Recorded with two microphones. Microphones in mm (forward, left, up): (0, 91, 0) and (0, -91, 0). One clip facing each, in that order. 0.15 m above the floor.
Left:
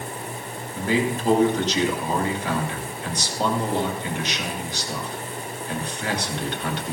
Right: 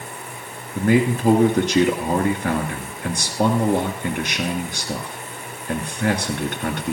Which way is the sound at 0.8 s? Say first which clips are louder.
Right 5 dB; 50° right (ahead or behind).